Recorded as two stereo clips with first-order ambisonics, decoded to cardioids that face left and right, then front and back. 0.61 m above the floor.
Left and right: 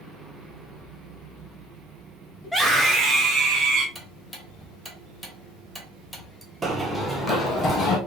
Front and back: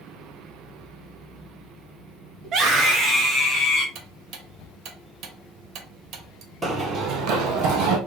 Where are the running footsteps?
125° right, 0.6 m; by 8.0 s 155° left, 1.1 m.